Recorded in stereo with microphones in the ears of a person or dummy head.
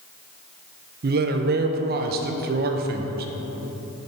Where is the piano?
No piano in this recording.